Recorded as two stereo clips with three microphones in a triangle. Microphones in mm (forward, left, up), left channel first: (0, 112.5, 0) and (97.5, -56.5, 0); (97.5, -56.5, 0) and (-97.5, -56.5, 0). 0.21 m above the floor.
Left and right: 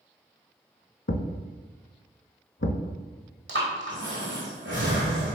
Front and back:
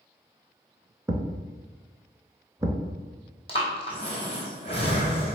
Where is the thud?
110° left, 0.5 m.